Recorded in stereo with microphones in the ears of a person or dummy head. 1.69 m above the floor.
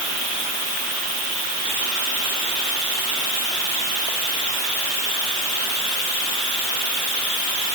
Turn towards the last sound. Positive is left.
No sound to turn to.